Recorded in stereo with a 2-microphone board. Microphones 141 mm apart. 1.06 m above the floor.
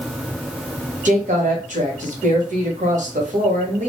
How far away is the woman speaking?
About 0.9 m.